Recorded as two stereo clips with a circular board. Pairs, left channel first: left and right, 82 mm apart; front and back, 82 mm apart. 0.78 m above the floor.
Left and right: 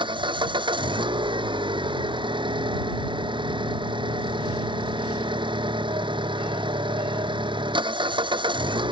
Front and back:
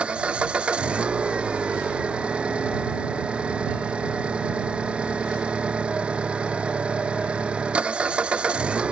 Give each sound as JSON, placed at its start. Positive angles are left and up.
{"t": 0.0, "sound": "an engine running", "azimuth_deg": -100}